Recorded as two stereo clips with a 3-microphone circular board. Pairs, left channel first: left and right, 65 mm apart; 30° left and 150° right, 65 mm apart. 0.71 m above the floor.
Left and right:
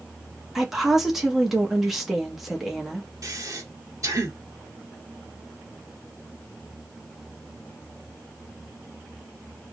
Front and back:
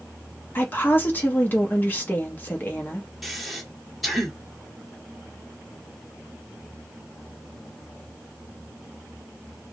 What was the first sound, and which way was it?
A woman speaking, 5° right.